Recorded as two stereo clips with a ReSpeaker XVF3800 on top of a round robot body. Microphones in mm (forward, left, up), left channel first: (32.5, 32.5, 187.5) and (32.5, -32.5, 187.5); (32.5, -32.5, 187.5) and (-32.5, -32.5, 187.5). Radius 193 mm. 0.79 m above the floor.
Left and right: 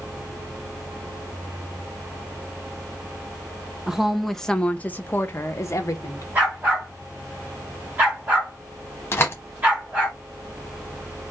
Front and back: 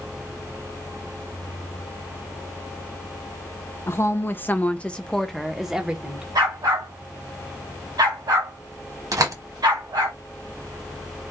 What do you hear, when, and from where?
3.9 s a woman speaking: 15° right, 1.0 m; by 6.2 s 105° left, 1.3 m
6.3 s a dog barking: 160° right, 1.6 m
9.1 s a door slam: 145° left, 1.1 m